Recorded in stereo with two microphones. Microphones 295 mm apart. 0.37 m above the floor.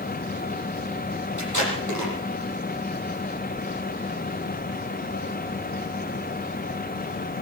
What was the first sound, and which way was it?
Tape being pulled, 85° right.